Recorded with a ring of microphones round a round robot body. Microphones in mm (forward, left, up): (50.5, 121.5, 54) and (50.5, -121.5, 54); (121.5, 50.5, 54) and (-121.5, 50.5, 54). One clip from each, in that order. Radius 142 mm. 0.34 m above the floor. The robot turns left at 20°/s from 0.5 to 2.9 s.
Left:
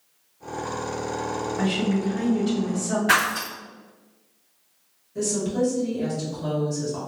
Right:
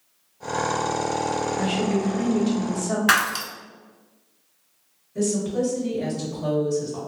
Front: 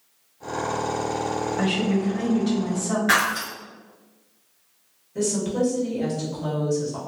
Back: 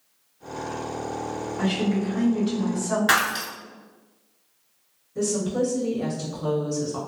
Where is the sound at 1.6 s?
30° right, 1.6 m; by 3.0 s 55° right, 1.6 m.